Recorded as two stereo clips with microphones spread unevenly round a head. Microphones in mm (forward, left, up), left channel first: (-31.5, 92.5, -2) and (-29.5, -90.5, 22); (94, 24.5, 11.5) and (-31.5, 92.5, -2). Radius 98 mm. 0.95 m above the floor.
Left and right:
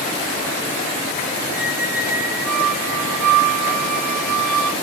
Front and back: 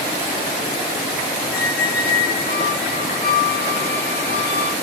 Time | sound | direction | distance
1.5 | a squeak | 45° right | 4 m